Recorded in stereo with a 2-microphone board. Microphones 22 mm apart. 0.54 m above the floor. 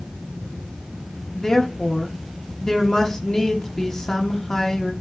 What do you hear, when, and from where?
1.3 s a woman speaking: 30° left (ahead or behind), 0.9 m